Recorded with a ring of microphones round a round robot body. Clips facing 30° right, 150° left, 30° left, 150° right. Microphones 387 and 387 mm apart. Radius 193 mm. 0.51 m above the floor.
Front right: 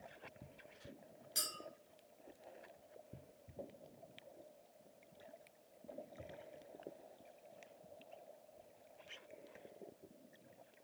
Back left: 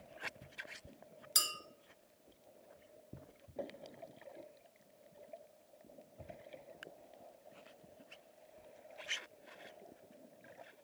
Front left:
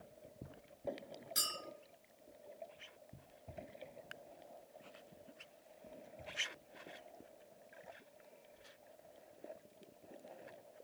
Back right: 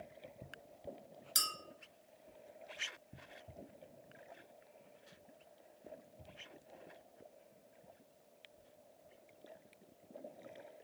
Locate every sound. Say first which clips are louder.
1.4 s a clink: back left 1 dB, front left 1 dB; straight behind, 0.8 m